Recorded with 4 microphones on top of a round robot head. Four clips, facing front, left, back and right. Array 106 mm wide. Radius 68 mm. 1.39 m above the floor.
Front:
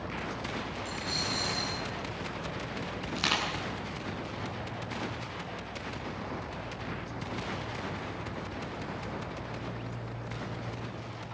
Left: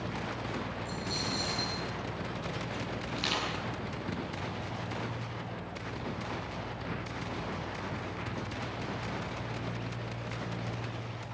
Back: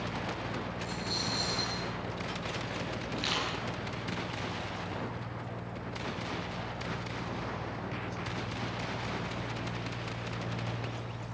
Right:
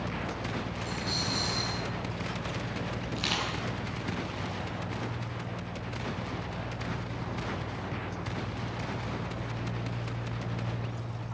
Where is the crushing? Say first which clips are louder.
Right 1 dB, front 4 dB; 5° left, 9.5 m.